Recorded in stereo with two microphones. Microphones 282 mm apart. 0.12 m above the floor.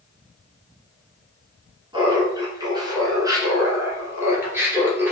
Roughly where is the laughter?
Centre.